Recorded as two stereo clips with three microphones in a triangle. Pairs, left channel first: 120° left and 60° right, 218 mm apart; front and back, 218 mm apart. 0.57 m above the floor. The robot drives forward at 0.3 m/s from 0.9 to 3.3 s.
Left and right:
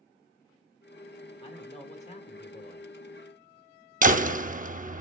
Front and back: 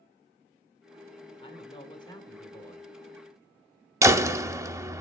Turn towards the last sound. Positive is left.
turn(degrees=-105)